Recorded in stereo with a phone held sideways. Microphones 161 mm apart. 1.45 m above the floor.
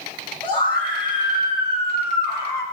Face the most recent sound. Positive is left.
turn(degrees=25)  # may be behind; listen again after turning